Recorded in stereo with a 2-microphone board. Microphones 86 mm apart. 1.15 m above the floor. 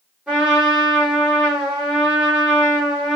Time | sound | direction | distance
0.3 | a trumpet | 15° right (ahead or behind) | 3 m